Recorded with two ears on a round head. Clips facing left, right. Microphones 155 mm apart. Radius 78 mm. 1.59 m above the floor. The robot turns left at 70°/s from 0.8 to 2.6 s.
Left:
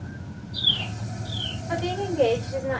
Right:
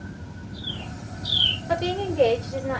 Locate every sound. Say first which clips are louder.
1.7 s a woman speaking: right 2 dB; 120° right, 5 m; by 2.8 s straight behind, 5 m